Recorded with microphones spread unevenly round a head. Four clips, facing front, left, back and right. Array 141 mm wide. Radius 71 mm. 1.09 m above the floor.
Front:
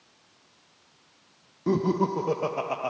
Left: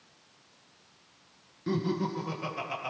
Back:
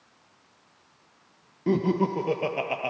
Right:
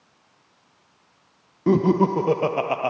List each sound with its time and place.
1.7 s laughter: 85° right, 0.9 m